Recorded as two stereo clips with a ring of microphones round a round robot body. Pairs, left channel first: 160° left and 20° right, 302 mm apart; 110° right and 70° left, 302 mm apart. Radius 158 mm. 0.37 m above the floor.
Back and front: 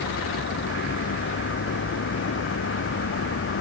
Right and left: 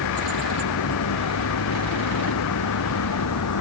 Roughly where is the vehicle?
Behind right.